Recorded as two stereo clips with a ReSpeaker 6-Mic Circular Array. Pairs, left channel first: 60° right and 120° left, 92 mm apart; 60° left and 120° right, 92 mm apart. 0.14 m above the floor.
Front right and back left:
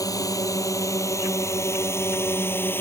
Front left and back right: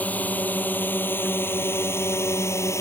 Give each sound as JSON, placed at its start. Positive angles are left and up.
{"t": 0.0, "sound": "a drone", "azimuth_deg": -10}